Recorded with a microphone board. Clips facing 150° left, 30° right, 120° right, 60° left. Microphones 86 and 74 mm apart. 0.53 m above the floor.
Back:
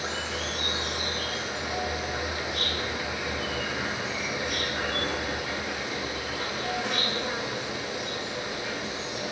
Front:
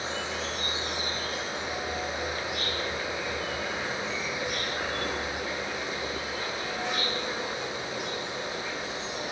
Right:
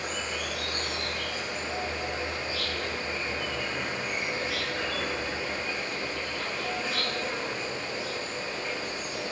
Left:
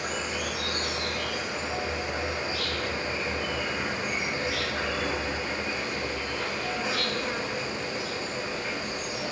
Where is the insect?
135° left, 4.5 m.